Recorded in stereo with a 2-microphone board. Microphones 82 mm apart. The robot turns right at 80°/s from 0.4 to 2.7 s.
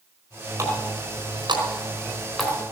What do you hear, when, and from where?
0.6 s a running tap: 35° right (ahead or behind), 4 m; by 2.5 s 10° left (ahead or behind), 4 m